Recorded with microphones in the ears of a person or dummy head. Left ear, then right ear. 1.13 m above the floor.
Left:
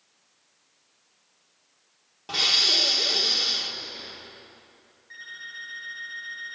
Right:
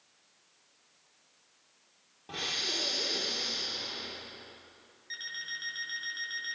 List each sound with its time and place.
2.3 s breathing: 50° left (ahead or behind), 1.7 m
5.1 s an alarm clock: 50° right (ahead or behind), 8 m